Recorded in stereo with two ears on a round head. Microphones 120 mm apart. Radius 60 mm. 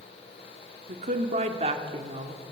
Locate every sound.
0.9 s a woman speaking: 55° right (ahead or behind), 2 m; by 2.4 s 35° right (ahead or behind), 2.5 m